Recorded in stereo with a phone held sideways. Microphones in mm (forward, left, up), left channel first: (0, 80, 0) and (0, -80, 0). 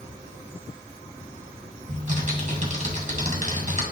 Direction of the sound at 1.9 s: 50° right (ahead or behind).